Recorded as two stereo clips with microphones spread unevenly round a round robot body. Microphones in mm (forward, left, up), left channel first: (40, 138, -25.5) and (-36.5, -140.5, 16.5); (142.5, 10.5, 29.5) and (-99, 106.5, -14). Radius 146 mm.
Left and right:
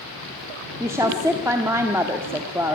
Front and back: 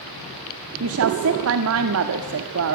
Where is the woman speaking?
170° left, 1.5 m.